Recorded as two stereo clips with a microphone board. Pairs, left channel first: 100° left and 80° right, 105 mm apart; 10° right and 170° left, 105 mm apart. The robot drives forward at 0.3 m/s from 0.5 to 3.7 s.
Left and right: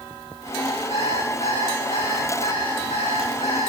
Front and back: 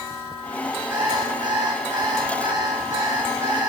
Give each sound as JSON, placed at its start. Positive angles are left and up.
{"t": 0.9, "sound": "an alarm clock", "azimuth_deg": 110, "distance_m": 6.0}